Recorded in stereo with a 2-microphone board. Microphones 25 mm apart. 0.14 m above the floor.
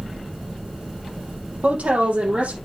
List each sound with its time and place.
1.6 s a woman speaking: 70° right (ahead or behind), 5.5 m